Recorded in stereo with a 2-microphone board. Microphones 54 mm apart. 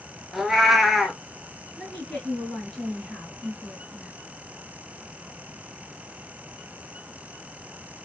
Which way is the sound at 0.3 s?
5° right (ahead or behind).